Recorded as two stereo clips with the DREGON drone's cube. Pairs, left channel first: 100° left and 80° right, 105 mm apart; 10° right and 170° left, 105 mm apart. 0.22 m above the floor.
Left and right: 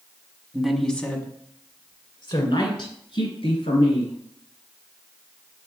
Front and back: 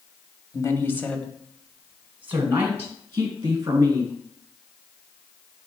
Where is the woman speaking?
Straight ahead, 1.3 m; by 4.2 s 115° left, 3.5 m.